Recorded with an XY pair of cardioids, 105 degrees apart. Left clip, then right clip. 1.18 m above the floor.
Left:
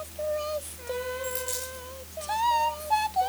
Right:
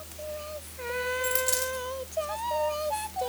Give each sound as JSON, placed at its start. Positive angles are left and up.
{"t": 1.2, "sound": "a dropped coin", "azimuth_deg": -45, "distance_m": 4.5}